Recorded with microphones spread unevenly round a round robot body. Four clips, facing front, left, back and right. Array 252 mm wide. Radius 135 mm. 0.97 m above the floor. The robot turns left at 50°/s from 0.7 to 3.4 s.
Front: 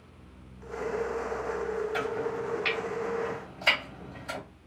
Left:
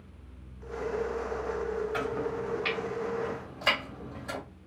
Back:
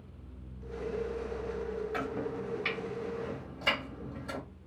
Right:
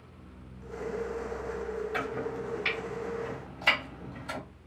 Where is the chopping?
150° right, 1.1 m; by 4.4 s 135° left, 1.1 m.